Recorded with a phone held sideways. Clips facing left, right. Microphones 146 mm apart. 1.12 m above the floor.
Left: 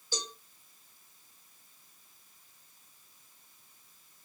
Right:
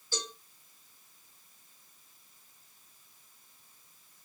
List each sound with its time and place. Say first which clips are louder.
0.1 s a cowbell: right 1 dB; 20° left (ahead or behind), 1.2 m